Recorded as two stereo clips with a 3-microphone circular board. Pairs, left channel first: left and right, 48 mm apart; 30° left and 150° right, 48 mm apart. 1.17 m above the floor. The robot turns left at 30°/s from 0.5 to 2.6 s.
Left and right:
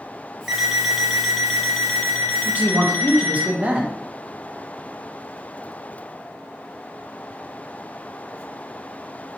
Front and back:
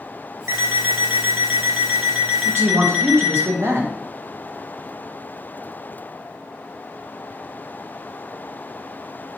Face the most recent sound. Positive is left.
turn(degrees=-150)